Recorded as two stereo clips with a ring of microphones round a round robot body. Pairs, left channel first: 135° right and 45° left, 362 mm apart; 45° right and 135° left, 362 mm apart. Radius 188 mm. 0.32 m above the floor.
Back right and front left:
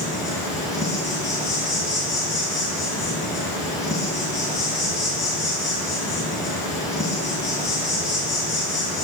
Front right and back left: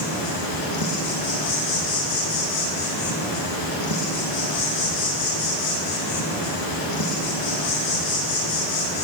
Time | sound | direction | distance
0.0 | an insect | 55° right | 1.8 m